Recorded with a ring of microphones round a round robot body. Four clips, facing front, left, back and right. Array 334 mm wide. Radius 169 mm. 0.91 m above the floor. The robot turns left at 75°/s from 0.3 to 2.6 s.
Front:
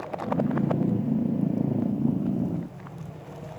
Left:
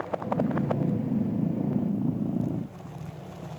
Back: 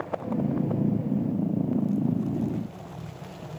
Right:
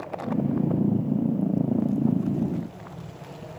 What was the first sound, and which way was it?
Only background noise.